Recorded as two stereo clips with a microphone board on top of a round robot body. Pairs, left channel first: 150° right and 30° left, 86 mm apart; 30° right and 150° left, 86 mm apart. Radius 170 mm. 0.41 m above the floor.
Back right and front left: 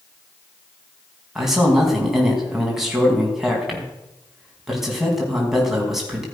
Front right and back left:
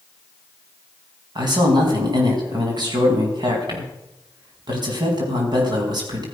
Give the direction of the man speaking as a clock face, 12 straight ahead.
8 o'clock.